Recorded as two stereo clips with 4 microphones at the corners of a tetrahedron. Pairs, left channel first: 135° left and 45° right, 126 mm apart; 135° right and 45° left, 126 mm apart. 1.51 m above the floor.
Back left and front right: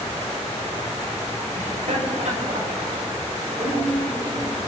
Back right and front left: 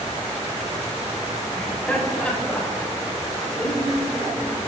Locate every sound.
1.6 s laughter: 55° right, 6 m